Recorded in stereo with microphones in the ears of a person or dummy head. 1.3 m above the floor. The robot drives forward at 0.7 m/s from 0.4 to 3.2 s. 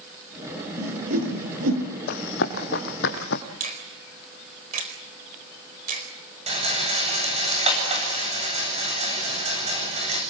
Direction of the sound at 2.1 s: 60° left (ahead or behind).